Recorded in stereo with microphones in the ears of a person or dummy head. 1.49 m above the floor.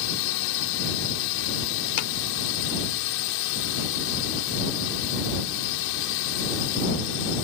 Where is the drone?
75° left (ahead or behind).